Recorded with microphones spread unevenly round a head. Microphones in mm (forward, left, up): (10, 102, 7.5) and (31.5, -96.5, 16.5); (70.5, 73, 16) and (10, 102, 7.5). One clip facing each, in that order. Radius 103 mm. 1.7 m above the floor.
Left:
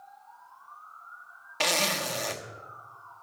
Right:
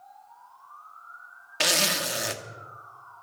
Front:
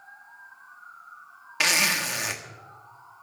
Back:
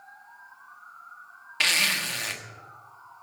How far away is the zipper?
About 1.2 m.